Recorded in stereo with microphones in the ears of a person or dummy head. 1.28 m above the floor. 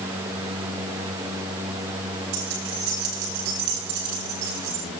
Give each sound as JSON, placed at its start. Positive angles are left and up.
{"t": 2.3, "sound": "keys jangling", "side_deg": -65, "distance_m": 10.0}